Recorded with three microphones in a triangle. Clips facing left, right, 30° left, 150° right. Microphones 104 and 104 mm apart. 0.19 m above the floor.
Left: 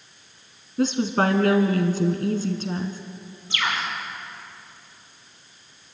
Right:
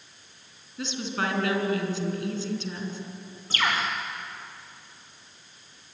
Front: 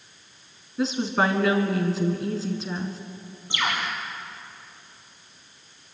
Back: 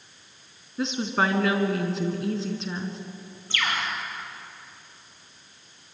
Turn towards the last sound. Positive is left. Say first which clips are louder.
# even, front 1 dB
turn(degrees=-45)